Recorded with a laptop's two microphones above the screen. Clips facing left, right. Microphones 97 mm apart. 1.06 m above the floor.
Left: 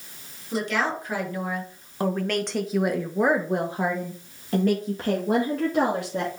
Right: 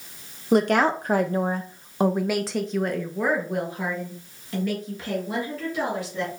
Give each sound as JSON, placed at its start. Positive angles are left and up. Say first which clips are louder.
{"t": 0.5, "sound": "a woman speaking", "louder": "right 7 dB", "side_deg": -60, "distance_m": 1.3}